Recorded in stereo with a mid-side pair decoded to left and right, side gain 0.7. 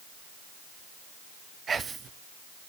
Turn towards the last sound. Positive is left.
turn(degrees=-25)